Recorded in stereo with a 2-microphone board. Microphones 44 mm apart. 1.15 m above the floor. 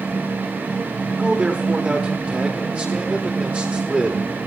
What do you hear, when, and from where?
1.2 s a man speaking: 40° right (ahead or behind), 4.5 m